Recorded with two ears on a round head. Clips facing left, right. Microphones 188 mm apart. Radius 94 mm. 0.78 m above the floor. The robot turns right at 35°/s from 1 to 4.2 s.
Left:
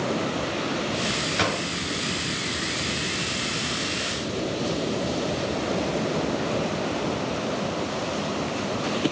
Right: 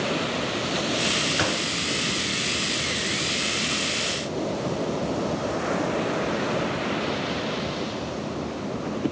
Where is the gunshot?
5° right (ahead or behind), 7.5 m; by 1.6 s 20° right (ahead or behind), 7.5 m.